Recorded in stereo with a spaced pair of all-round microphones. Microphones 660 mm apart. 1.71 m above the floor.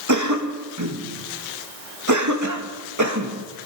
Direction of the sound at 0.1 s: 25° right (ahead or behind).